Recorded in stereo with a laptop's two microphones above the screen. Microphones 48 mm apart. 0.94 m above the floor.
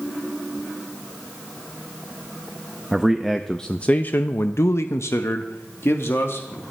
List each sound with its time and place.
2.9 s a man speaking: 5° right (ahead or behind), 0.8 m; by 6.6 s 55° left (ahead or behind), 1.4 m